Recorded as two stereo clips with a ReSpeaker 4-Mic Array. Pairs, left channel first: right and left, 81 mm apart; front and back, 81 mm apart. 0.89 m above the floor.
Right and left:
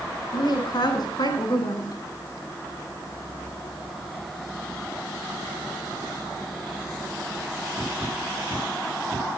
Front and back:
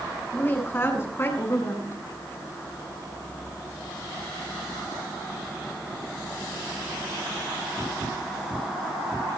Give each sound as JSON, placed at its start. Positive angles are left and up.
{"t": 0.3, "sound": "a woman speaking", "azimuth_deg": -65, "distance_m": 8.5}